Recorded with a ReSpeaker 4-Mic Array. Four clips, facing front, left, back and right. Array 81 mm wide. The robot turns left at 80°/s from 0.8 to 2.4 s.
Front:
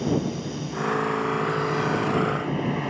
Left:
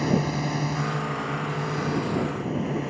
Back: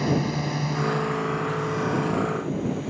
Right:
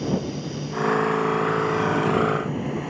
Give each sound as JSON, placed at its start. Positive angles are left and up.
{"t": 0.0, "sound": "a drone", "azimuth_deg": 130}